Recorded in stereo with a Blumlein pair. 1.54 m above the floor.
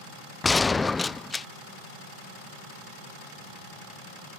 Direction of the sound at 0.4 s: 10° left.